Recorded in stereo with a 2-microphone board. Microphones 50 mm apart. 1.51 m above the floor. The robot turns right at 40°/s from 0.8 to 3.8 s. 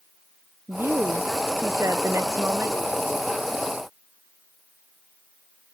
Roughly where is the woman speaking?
Behind right.